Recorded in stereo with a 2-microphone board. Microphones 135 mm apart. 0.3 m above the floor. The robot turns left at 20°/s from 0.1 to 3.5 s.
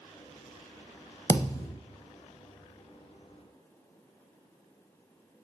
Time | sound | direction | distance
1.3 | a thud | 25° left (ahead or behind) | 0.6 m